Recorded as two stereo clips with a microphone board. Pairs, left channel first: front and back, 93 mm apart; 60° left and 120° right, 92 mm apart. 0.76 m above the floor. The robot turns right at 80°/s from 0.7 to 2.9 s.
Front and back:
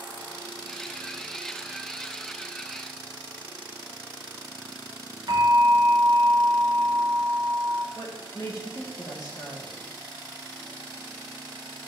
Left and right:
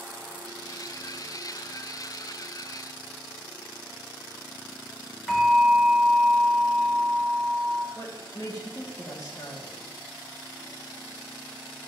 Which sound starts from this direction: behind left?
A bell, at 5.3 s.